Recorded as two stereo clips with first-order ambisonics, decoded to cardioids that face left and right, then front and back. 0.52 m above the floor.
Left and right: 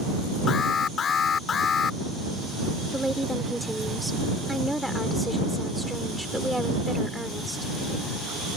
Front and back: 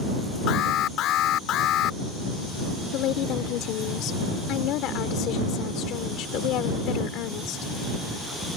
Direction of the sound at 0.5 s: 35° left.